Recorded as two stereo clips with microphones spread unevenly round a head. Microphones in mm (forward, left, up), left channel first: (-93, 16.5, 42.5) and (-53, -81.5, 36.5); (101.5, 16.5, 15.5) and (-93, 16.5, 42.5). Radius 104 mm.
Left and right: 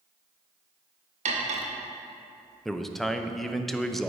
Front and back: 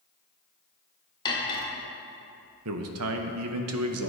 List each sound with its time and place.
1.2 s cutlery clinking: 75° right, 0.9 m
2.6 s a man speaking: 160° right, 0.6 m